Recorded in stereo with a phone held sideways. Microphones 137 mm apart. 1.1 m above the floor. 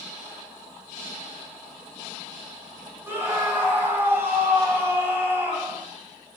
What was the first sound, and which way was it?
A scream, 15° right (ahead or behind).